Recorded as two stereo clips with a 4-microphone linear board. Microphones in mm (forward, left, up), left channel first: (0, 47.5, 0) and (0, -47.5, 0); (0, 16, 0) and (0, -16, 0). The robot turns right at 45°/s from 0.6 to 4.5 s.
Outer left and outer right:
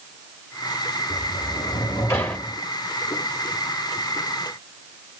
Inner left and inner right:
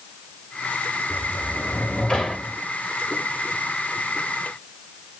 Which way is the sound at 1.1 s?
110° left.